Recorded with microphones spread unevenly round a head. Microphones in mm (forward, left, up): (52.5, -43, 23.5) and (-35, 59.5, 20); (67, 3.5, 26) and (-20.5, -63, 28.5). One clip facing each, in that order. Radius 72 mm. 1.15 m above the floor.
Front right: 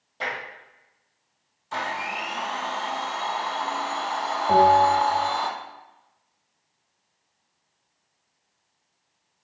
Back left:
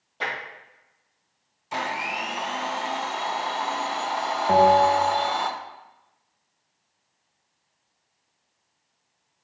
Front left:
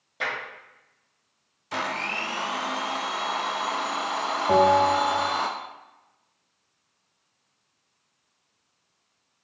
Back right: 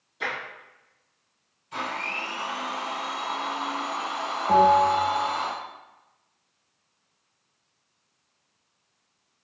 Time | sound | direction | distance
0.2 | tapping | 35° left | 1.9 m
1.7 | a blender | 55° left | 0.5 m
4.5 | a bell | 70° left | 1.0 m